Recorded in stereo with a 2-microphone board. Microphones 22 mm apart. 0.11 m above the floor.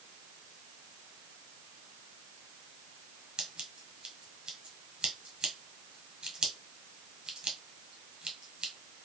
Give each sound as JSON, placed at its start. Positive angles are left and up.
{"t": 3.4, "sound": "scissors", "side_deg": -40, "distance_m": 1.0}